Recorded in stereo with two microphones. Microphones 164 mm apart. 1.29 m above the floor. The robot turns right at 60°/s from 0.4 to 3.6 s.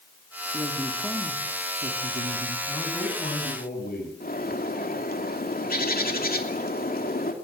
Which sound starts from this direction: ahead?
A man speaking, at 2.7 s.